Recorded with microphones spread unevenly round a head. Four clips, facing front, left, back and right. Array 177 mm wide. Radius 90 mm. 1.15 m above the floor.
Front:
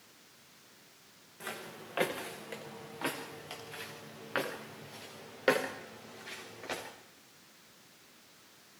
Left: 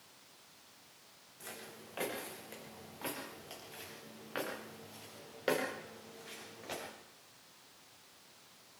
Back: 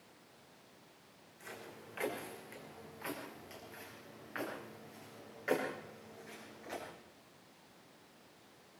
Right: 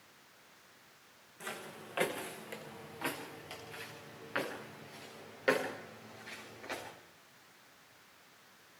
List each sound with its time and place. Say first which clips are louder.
1.4 s footsteps: right 5 dB, front 6 dB; 15° right, 5.5 m; by 6.9 s 10° left, 11.5 m